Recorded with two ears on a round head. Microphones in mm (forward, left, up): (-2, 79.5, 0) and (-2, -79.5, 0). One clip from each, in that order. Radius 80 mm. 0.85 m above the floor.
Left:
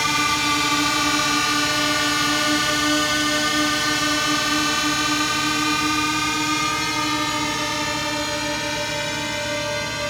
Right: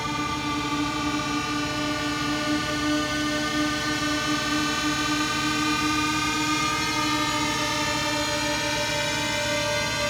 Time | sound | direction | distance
0.0 | a drone | 55° left (ahead or behind) | ?